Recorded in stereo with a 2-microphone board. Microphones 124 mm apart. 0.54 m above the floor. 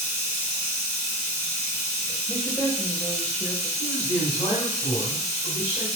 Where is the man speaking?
60° left (ahead or behind), 2 m.